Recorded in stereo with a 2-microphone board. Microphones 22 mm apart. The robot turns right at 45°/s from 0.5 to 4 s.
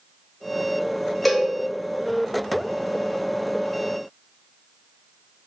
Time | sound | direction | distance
1.2 | a cowbell | 5° left (ahead or behind) | 0.6 m